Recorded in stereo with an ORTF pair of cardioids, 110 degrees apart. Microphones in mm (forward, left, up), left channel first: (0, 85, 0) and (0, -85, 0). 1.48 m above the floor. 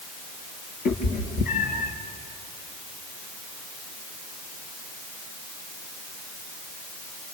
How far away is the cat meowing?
About 5.5 m.